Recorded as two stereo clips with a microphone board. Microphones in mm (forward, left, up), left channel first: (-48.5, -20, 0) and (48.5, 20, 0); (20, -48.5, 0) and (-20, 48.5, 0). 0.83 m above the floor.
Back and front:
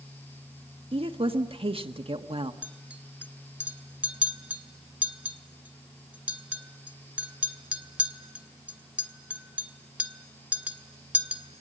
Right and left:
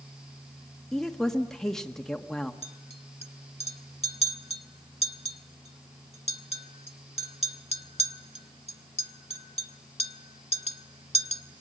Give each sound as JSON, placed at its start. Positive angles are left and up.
{"t": 0.9, "sound": "a woman speaking", "azimuth_deg": 15, "distance_m": 1.4}
{"t": 2.6, "sound": "a clink", "azimuth_deg": -55, "distance_m": 1.5}